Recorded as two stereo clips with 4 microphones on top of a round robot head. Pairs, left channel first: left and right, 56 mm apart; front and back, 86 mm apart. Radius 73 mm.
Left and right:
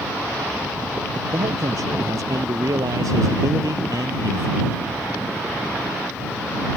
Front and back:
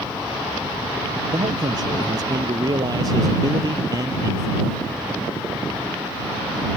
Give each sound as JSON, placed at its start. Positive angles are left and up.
{"t": 1.3, "sound": "a man speaking", "azimuth_deg": -130}